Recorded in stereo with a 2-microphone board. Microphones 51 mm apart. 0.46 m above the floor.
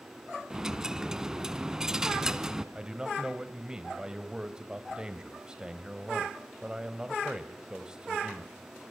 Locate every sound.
0.5 s a dropped coin: 10° right (ahead or behind), 1.2 m
2.8 s a man speaking: 15° right (ahead or behind), 2.5 m